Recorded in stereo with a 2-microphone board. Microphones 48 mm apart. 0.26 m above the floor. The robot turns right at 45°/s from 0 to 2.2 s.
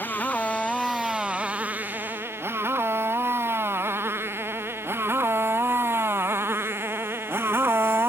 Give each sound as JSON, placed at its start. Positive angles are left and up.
{"t": 0.0, "sound": "a motorcycle", "side_deg": 40}